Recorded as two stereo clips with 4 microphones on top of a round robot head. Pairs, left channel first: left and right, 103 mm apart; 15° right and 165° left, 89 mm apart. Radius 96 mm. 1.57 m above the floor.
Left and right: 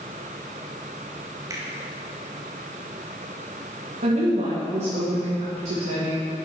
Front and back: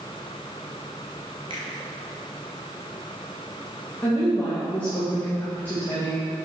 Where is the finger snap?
150° right, 1.9 m.